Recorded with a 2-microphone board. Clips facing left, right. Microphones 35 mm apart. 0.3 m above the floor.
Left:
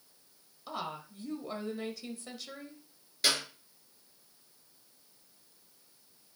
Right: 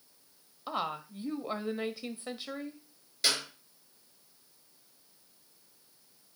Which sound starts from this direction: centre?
A clap, at 3.2 s.